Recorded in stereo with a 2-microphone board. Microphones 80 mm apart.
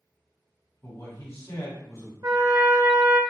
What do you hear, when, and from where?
0.8 s a man speaking: 35° left (ahead or behind), 1.7 m
2.2 s a trumpet: 55° right (ahead or behind), 0.6 m